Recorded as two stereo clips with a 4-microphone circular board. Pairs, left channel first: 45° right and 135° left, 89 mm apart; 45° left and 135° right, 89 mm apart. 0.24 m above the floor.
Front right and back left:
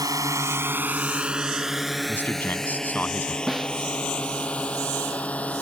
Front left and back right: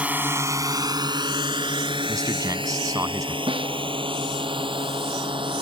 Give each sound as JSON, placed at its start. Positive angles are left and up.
{"t": 0.0, "sound": "a drone", "azimuth_deg": 155}
{"t": 2.1, "sound": "a man speaking", "azimuth_deg": -110}
{"t": 3.5, "sound": "a snare drum", "azimuth_deg": -135}